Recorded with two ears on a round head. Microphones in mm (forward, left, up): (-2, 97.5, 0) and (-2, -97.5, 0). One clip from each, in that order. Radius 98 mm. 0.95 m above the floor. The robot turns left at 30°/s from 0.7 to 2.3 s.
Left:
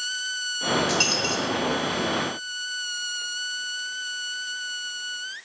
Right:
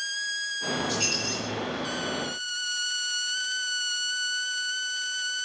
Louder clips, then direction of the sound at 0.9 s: Left 5 dB; 60° left (ahead or behind).